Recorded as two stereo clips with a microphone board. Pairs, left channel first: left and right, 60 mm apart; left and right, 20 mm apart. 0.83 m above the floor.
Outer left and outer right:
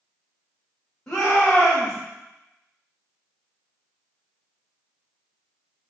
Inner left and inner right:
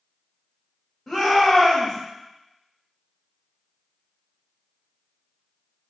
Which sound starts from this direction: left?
A shout, at 1.1 s.